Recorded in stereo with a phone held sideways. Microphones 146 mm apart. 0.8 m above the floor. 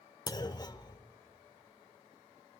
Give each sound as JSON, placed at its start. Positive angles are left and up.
{"t": 0.3, "sound": "a clunk", "side_deg": 30, "distance_m": 0.8}